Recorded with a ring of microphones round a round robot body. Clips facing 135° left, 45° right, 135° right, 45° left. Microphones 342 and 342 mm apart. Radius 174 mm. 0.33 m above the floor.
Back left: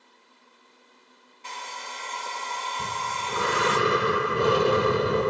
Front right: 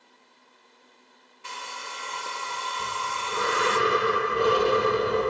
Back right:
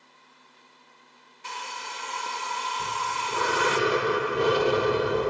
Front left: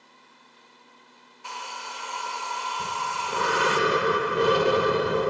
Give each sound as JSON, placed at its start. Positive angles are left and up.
{"t": 1.4, "sound": "a hair dryer", "azimuth_deg": -105, "distance_m": 0.6}
{"t": 2.8, "sound": "breathing", "azimuth_deg": 120, "distance_m": 1.9}